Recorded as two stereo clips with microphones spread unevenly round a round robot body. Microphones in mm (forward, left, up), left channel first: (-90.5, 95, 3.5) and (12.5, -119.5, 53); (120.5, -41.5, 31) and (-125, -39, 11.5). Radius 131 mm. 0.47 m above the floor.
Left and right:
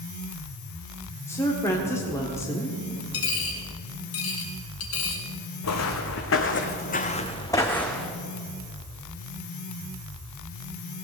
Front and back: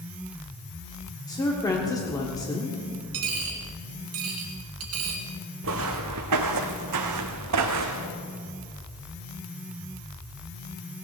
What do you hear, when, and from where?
1.3 s a woman speaking: 70° left, 1.4 m
3.1 s a dropped coin: 145° left, 2.5 m
5.6 s footsteps: 135° left, 1.8 m; by 8.2 s 150° right, 1.9 m